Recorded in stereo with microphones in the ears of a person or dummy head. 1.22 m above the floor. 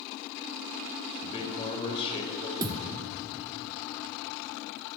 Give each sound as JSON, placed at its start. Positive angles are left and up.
{"t": 1.2, "sound": "a man speaking", "side_deg": 30, "distance_m": 4.5}
{"t": 2.6, "sound": "a thud", "side_deg": -20, "distance_m": 1.1}